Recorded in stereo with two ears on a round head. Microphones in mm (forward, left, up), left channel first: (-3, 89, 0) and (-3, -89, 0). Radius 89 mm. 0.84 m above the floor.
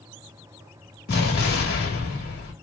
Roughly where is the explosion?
Left.